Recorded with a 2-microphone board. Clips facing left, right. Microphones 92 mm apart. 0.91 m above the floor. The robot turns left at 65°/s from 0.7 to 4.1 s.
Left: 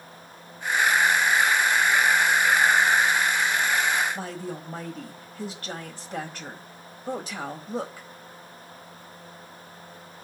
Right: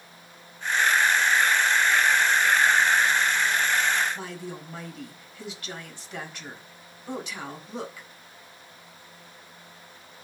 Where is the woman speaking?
40° left (ahead or behind), 4.5 m.